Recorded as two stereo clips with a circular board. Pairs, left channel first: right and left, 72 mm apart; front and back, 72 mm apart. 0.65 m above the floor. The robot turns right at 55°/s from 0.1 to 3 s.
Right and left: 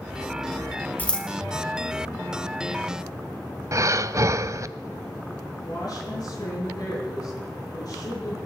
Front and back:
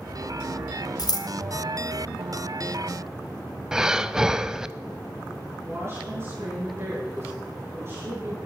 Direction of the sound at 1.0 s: 20° right.